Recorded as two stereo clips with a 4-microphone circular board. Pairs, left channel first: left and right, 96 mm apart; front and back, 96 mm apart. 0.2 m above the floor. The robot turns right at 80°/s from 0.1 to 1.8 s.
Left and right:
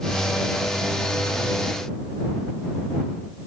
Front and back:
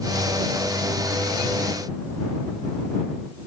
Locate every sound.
Only background noise.